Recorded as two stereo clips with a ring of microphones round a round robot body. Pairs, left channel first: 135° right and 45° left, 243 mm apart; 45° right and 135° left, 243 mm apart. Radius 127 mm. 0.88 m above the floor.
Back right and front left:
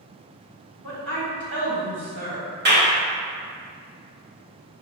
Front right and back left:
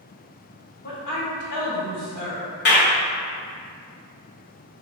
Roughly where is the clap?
Ahead.